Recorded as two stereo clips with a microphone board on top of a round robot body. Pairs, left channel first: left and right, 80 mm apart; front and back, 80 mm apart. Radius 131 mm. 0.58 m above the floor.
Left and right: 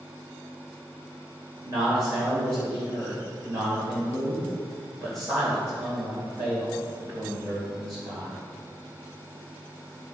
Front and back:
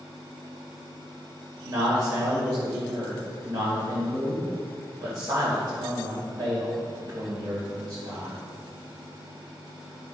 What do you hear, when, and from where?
1.6 s a man speaking: 135° right, 3 m